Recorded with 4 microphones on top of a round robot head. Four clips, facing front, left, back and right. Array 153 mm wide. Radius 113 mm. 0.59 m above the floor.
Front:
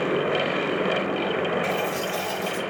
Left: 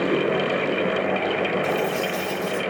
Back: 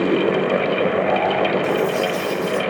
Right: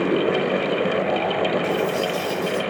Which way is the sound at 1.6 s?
75° left.